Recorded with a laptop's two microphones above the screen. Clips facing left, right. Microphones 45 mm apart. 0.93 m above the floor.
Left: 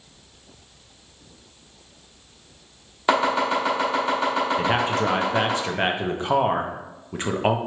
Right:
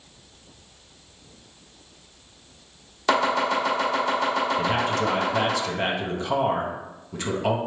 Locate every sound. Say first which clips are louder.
3.1 s chopping: left 1 dB; 15° left (ahead or behind), 1.5 m
4.6 s a man speaking: left 1 dB; 30° left (ahead or behind), 0.6 m